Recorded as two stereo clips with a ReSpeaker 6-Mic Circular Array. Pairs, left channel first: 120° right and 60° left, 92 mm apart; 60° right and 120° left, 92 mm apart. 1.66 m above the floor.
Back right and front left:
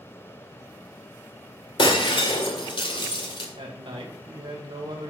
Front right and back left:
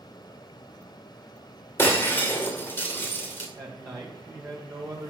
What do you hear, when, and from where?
1.8 s breaking glass: 125° right, 2.5 m
3.5 s a man speaking: 65° left, 1.8 m